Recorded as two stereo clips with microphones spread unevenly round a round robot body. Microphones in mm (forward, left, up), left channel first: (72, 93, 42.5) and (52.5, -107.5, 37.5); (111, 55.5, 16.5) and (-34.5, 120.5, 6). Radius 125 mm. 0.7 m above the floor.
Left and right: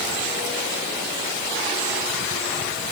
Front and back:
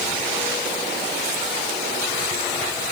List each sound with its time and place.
Only background noise.